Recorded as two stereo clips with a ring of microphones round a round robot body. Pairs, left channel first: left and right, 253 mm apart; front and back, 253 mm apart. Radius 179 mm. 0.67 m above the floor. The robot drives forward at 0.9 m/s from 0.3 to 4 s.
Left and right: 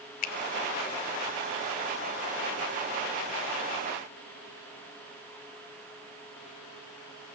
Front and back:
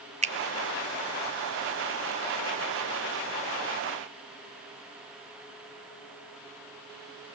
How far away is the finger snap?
About 1.2 m.